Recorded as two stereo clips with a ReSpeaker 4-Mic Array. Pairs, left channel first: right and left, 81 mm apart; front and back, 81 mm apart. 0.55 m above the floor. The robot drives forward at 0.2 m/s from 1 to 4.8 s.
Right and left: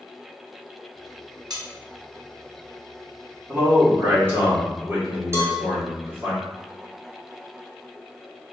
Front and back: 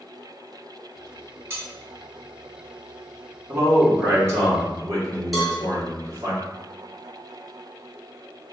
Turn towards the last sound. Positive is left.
turn(degrees=90)